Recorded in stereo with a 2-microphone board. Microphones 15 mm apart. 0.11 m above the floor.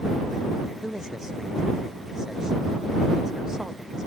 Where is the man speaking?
45° right (ahead or behind).